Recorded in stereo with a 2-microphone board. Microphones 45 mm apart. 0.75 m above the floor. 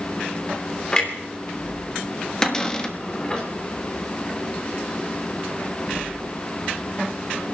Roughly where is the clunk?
Centre.